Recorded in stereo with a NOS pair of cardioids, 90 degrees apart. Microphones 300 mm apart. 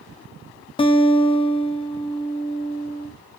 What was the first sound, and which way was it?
A guitar, 15° left.